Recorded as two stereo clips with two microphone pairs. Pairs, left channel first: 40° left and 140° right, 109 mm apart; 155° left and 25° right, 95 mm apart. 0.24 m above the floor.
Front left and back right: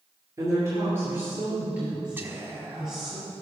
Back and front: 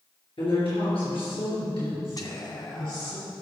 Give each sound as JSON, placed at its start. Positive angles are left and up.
{"t": 0.4, "sound": "a woman speaking", "azimuth_deg": 160, "distance_m": 3.5}
{"t": 2.2, "sound": "whispering", "azimuth_deg": 160, "distance_m": 1.5}